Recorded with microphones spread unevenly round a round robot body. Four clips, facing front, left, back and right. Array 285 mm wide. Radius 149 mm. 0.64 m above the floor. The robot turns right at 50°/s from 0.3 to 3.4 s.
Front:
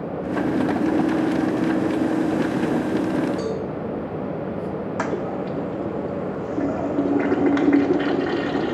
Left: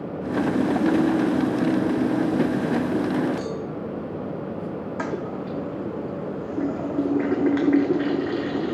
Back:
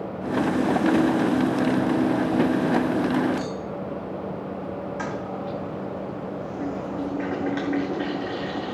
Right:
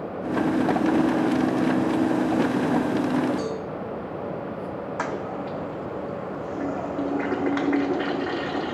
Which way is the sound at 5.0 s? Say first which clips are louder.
Even, front 5 dB; 25° left.